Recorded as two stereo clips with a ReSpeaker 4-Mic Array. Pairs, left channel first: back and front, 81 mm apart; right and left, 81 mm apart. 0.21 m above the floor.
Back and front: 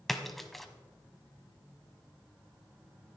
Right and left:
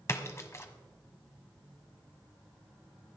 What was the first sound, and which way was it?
A splash, 95° right.